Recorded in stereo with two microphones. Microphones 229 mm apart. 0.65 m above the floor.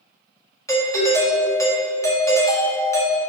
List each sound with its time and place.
0.7 s a doorbell: 15° left (ahead or behind), 1.5 m